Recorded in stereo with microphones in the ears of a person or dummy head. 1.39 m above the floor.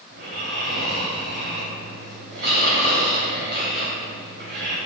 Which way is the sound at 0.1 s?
60° right (ahead or behind).